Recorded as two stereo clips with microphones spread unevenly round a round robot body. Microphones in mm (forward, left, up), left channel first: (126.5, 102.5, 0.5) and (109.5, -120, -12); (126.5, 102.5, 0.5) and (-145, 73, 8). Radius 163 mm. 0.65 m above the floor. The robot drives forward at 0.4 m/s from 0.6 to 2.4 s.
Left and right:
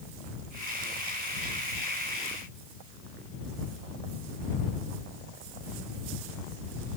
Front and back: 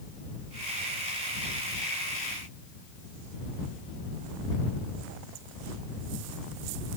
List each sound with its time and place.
Only background noise.